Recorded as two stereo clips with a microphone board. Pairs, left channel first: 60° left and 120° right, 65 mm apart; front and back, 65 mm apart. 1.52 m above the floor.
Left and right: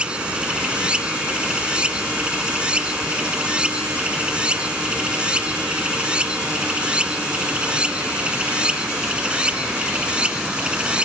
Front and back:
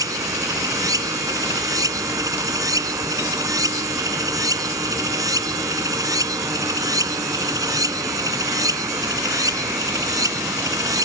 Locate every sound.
0.0 s running water: 165° left